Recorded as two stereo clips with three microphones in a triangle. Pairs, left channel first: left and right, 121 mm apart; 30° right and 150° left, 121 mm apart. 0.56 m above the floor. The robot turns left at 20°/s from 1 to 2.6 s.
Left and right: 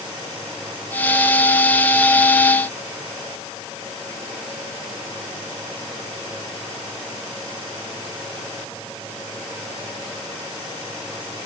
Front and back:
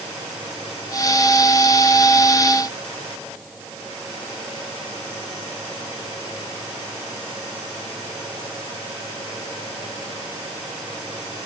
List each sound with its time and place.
Only background noise.